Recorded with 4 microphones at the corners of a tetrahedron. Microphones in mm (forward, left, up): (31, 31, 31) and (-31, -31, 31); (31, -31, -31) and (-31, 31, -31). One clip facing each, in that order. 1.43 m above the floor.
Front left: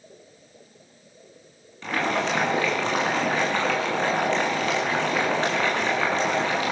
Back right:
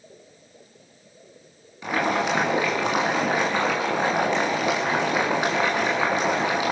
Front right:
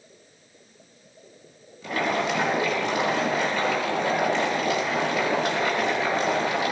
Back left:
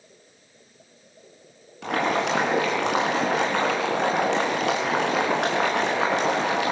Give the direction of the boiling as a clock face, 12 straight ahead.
7 o'clock.